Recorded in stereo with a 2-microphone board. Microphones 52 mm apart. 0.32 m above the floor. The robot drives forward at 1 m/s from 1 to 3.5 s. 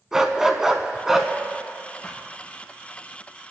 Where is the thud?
25° left (ahead or behind), 2.5 m; by 2.3 s 20° left (ahead or behind), 3 m.